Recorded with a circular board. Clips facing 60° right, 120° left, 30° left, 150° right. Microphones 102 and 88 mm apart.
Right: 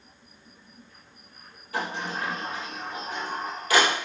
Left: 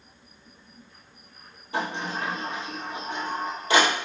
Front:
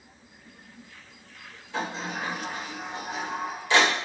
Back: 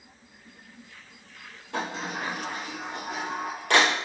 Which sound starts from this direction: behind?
A sliding door, at 1.7 s.